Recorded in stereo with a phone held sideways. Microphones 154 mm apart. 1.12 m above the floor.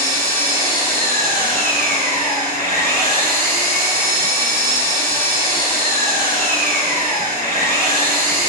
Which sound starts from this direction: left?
An engine running, at 0.0 s.